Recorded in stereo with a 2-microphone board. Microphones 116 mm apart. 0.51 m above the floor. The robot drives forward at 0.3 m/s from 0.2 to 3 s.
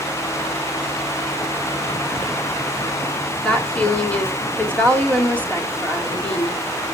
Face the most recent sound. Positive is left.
turn(degrees=10)  # may be behind; listen again after turning